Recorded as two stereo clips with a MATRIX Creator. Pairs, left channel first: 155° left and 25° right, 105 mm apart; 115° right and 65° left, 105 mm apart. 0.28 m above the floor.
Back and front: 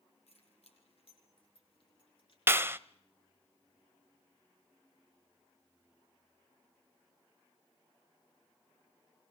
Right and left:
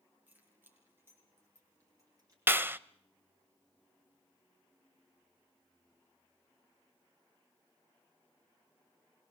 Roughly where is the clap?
Ahead.